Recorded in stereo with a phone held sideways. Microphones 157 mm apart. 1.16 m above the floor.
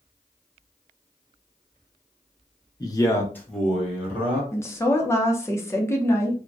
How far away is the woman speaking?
About 0.6 m.